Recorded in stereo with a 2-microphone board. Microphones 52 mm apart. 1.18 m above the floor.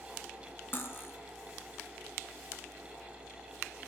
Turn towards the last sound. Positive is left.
turn(degrees=40)  # may be behind; listen again after turning